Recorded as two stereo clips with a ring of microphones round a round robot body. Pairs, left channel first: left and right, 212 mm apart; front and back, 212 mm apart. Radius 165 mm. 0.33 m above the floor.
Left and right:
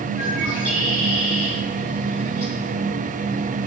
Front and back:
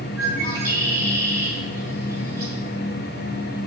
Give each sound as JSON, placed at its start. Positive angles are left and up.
{"t": 0.2, "sound": "a bird", "azimuth_deg": 170, "distance_m": 7.5}